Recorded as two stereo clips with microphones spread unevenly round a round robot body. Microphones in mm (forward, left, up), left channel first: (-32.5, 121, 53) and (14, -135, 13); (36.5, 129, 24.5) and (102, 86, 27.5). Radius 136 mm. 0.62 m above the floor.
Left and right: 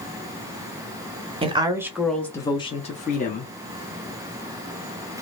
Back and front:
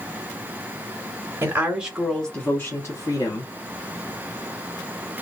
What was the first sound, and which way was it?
A woman speaking, 60° right.